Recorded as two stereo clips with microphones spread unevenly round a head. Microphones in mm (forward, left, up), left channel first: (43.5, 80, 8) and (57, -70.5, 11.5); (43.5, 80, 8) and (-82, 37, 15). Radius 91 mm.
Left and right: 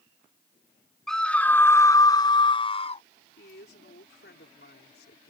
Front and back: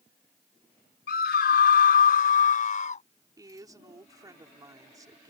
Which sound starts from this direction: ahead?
A scream, at 1.1 s.